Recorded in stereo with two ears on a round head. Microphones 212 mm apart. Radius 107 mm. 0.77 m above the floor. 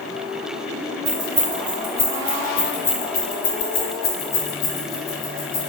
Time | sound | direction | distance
1.1 | keys jangling | 15° right (ahead or behind) | 2 m